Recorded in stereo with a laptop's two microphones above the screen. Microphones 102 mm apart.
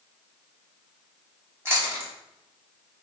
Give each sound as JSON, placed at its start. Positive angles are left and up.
{"t": 1.6, "sound": "chewing", "side_deg": -25, "distance_m": 1.5}